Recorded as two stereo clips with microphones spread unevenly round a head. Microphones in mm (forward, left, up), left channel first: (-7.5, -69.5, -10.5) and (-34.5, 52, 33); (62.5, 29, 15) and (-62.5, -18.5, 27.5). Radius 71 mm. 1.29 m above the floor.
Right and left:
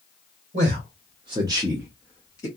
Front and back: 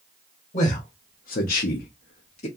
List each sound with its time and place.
0.5 s a man speaking: 65° left, 0.9 m; by 2.5 s 20° right, 0.7 m